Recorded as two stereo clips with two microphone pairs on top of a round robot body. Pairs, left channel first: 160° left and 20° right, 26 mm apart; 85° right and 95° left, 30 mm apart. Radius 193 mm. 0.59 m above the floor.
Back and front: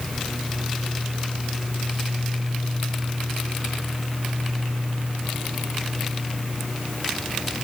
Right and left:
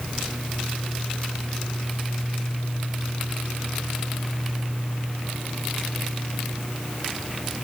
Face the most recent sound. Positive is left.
No sound to turn to.